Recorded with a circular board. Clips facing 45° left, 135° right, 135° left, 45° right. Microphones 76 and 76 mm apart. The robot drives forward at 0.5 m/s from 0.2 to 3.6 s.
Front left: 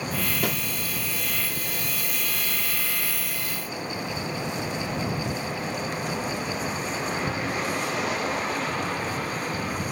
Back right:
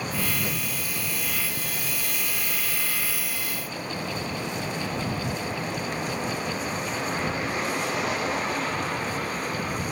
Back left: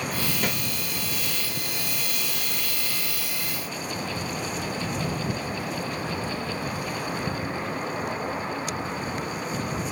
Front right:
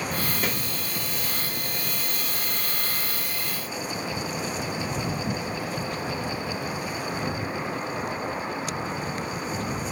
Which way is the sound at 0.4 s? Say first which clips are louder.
Front left 4 dB, back left 1 dB; 40° left.